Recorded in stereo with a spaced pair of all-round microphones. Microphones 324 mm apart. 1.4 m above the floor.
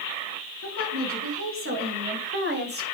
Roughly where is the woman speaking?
Right.